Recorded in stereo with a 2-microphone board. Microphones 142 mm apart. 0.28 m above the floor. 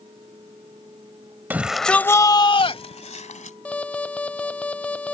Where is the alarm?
10° left (ahead or behind).